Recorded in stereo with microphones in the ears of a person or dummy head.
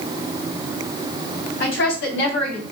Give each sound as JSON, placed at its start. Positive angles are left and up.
{"t": 1.6, "sound": "a woman speaking", "side_deg": 75, "distance_m": 2.5}